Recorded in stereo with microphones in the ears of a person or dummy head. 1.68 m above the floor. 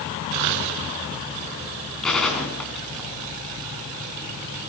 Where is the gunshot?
Centre (ahead or behind), 6 m.